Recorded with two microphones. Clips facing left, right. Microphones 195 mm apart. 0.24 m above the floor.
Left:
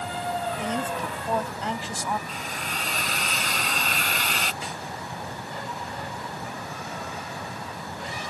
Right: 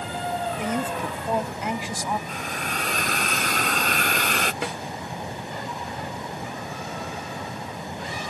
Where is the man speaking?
15° right (ahead or behind).